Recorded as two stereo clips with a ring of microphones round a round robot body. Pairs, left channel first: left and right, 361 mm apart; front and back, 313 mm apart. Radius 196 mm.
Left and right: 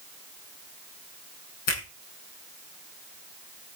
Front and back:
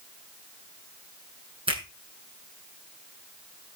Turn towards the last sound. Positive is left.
turn(degrees=105)